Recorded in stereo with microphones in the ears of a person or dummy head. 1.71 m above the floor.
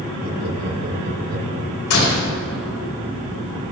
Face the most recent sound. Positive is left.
turn(degrees=80)